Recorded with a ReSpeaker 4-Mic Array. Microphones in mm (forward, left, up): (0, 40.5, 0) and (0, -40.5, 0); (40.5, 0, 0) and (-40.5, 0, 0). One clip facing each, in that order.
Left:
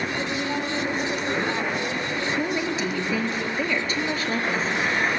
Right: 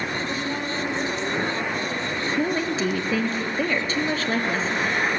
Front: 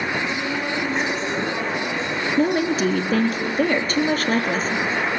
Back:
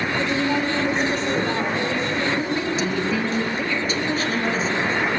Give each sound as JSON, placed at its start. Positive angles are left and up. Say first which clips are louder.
{"t": 0.2, "sound": "a woman speaking", "louder": "left 1 dB, back 3 dB", "azimuth_deg": 165, "distance_m": 8.5}
{"t": 2.4, "sound": "a woman speaking", "louder": "right 4 dB, front 4 dB", "azimuth_deg": -40, "distance_m": 3.5}